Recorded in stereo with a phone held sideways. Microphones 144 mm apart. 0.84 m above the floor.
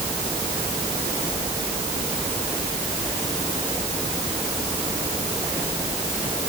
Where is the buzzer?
No buzzer in this recording.